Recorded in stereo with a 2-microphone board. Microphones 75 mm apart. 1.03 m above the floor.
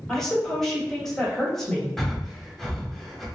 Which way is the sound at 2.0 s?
5° left (ahead or behind).